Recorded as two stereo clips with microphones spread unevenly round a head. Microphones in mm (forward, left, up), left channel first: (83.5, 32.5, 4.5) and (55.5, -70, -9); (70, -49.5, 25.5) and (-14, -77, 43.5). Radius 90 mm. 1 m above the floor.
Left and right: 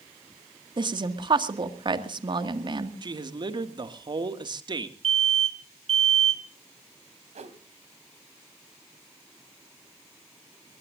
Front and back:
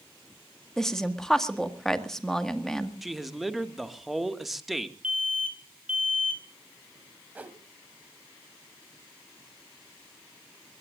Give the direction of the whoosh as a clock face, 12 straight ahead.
3 o'clock.